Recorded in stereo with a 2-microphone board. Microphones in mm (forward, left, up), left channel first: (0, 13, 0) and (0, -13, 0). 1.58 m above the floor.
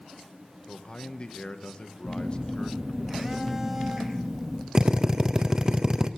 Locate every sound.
0.7 s a man speaking: 40° left (ahead or behind), 1.3 m
2.0 s a phone buzzing: 15° right (ahead or behind), 1.6 m
4.8 s a drill: 25° right (ahead or behind), 0.6 m